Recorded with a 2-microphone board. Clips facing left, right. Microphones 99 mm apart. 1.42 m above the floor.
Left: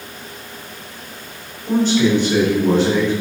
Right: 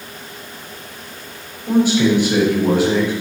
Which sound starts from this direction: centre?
A man speaking, at 1.7 s.